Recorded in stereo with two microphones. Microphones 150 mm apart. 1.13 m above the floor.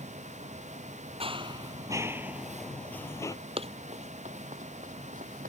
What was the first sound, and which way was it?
Running footsteps, 40° right (ahead or behind).